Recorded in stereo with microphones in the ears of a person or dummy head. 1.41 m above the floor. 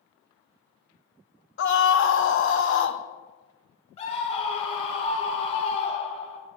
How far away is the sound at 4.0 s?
About 2.0 m.